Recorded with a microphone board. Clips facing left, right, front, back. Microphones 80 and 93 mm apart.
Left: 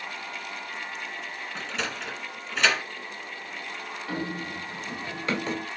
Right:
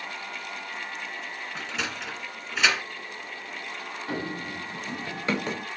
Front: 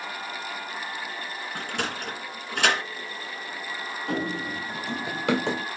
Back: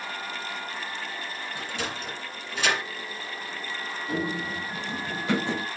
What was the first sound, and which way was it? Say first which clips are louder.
A sliding door: left 1 dB, front 3 dB; 5° right.